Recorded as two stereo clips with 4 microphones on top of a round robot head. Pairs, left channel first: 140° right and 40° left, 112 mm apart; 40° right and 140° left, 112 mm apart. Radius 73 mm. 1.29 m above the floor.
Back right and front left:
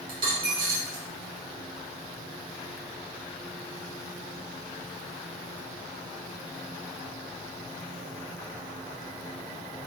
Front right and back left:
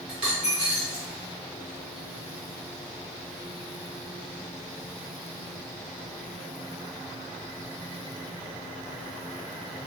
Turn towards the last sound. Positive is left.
turn(degrees=60)